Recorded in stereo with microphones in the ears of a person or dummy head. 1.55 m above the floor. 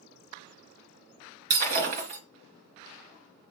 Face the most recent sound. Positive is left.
turn(degrees=-50)  # may be behind; listen again after turning